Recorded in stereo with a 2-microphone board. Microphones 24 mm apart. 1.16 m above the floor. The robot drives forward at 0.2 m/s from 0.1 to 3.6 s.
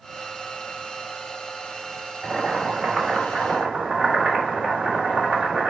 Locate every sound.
2.2 s boiling: 55° right (ahead or behind), 1.7 m; by 5.7 s 65° right (ahead or behind), 1.5 m